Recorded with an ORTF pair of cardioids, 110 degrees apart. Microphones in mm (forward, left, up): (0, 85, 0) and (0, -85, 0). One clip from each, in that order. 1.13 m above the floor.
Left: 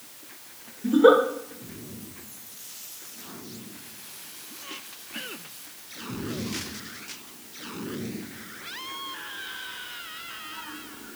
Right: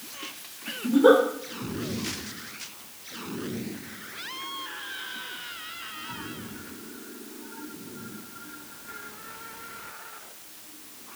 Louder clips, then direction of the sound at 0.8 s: Left 1 dB; 20° left.